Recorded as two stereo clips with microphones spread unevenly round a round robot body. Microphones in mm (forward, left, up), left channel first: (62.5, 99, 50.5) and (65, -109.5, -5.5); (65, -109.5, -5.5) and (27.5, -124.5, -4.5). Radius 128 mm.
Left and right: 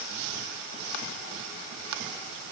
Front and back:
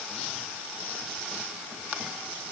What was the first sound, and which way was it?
Only background noise.